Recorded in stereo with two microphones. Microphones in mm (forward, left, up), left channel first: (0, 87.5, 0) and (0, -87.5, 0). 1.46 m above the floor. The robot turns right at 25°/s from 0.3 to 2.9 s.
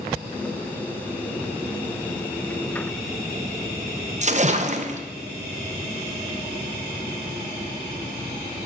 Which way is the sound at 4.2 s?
45° right (ahead or behind).